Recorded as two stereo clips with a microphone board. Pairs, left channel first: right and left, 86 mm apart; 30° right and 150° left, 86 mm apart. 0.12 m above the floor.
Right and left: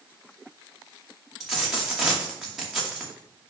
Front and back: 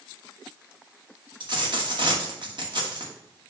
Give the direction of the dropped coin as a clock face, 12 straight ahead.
6 o'clock.